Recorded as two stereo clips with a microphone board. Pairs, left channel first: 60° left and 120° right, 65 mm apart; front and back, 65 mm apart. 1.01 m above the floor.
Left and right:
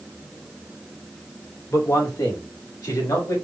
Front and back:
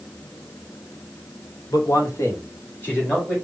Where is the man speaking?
15° left, 1.1 m; by 3.4 s 70° left, 2 m.